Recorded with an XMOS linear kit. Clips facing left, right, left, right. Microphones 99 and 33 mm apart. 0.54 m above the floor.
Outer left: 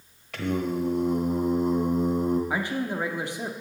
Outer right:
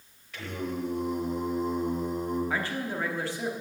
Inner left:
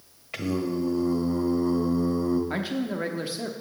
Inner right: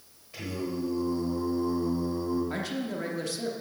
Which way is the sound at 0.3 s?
65° left (ahead or behind).